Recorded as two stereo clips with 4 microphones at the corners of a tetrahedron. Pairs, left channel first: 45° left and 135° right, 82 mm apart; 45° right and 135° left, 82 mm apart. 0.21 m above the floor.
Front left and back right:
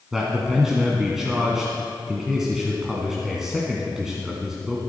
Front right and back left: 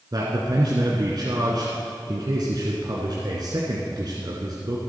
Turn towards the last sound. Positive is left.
turn(degrees=140)